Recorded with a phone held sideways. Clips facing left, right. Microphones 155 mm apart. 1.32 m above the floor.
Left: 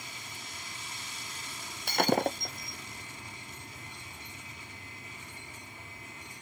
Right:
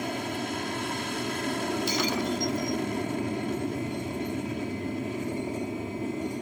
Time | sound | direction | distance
0.0 | an aircraft | 70° right (ahead or behind) | ?
1.9 | breaking glass | 55° left (ahead or behind) | ?